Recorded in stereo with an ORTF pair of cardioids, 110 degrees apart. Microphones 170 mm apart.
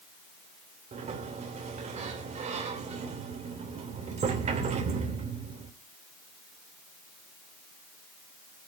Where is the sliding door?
45° right, 3 m.